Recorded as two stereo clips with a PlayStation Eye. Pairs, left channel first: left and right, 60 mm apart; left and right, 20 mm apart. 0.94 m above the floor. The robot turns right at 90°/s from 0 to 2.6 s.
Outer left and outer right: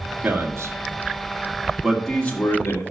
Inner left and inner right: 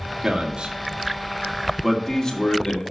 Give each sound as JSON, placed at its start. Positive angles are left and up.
{"t": 0.2, "sound": "a man speaking", "side_deg": -20, "distance_m": 1.7}